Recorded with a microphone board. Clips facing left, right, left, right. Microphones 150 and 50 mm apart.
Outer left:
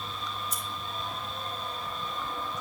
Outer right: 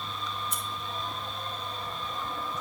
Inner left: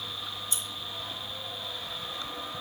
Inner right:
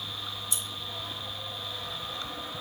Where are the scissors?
45° left (ahead or behind), 2 m.